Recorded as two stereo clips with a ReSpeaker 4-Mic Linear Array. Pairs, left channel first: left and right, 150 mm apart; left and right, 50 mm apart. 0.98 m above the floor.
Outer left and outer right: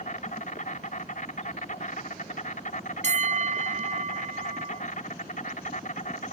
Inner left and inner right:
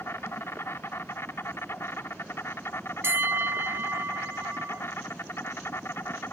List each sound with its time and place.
0.0 s an insect: 55° left (ahead or behind)
3.0 s a bell: 50° right (ahead or behind)